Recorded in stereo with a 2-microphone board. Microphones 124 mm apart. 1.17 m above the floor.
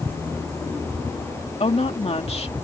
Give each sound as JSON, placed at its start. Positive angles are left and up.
{"t": 1.6, "sound": "a woman speaking", "side_deg": 60}